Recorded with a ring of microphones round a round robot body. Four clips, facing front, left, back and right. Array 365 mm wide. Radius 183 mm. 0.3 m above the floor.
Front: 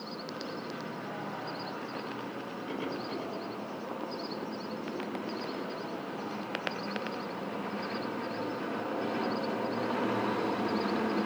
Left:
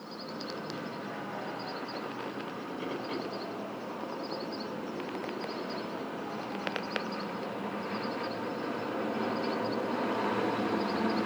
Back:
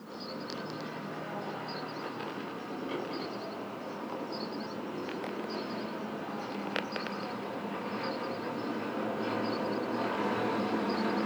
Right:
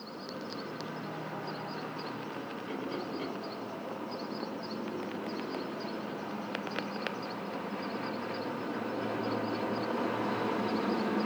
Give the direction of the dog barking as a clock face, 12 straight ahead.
I don't hear a dog barking.